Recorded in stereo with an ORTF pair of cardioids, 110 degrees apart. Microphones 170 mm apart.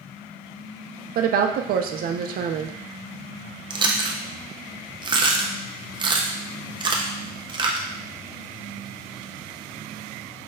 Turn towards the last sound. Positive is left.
turn(degrees=-25)